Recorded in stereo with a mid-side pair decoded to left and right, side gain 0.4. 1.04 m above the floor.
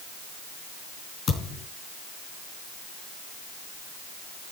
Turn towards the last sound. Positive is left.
turn(degrees=65)